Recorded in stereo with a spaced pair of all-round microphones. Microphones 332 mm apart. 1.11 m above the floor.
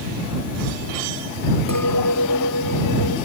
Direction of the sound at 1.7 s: 70° left (ahead or behind).